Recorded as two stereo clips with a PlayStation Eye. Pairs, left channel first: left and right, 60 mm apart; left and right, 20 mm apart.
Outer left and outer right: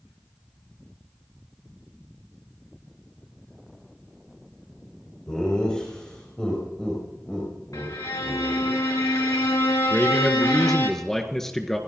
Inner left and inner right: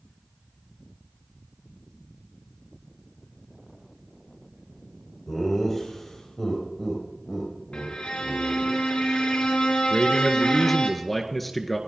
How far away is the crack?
I don't hear a crack.